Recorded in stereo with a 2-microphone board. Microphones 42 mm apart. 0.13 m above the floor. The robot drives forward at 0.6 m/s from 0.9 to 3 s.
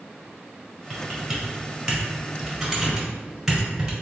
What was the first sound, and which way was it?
Typing on a keyboard, 10° right (ahead or behind).